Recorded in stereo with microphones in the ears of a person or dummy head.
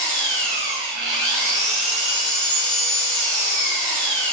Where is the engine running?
60° right (ahead or behind), 1.7 m.